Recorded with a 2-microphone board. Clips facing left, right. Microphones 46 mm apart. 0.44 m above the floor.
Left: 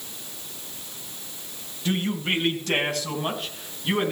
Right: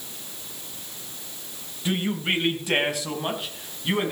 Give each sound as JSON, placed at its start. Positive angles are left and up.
{"t": 1.9, "sound": "a man speaking", "side_deg": -15, "distance_m": 2.5}